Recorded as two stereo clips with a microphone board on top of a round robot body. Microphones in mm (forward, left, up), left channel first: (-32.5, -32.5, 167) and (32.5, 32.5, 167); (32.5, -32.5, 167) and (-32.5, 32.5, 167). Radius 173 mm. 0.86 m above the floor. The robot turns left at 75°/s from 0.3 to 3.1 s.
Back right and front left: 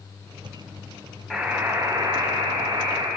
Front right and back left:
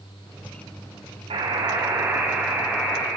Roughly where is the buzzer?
Behind left.